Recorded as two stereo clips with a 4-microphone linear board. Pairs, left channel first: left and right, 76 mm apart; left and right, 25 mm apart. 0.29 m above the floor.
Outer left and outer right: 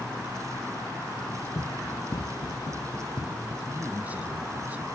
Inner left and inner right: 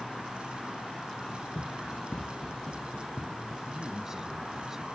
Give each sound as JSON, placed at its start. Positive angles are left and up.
{"t": 1.6, "sound": "running footsteps", "side_deg": 55}
{"t": 3.6, "sound": "a man speaking", "side_deg": -20}